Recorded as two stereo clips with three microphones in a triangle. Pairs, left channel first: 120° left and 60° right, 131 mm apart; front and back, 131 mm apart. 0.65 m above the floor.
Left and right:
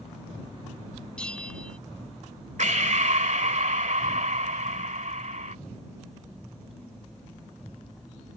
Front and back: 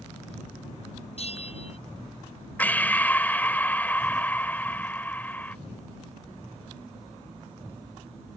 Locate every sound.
1.2 s a bell: 40° left
2.6 s breathing: 75° right